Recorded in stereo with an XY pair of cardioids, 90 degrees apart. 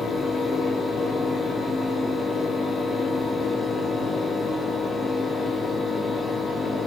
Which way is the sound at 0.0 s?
45° left.